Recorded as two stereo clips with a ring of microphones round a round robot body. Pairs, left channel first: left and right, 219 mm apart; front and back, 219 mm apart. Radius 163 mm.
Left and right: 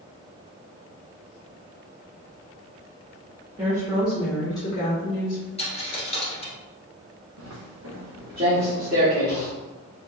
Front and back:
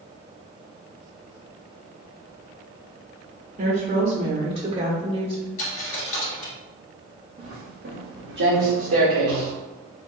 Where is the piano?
I don't hear a piano.